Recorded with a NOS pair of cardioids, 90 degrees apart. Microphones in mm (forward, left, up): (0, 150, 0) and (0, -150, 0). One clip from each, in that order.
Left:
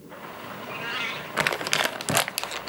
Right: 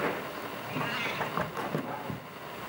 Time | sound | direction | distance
0.6 | a cat meowing | 25° left | 4 m